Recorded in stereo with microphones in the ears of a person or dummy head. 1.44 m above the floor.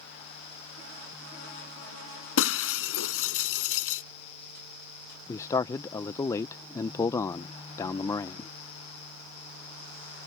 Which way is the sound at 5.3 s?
20° left (ahead or behind).